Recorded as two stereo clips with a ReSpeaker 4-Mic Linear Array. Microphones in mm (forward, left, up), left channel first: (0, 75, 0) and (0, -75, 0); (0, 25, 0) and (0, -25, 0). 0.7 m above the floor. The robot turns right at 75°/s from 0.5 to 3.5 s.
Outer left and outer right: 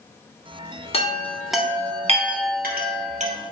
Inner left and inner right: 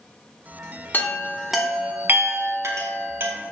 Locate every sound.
0.9 s a chime: 40° left (ahead or behind), 0.6 m; by 3.3 s 45° right (ahead or behind), 0.6 m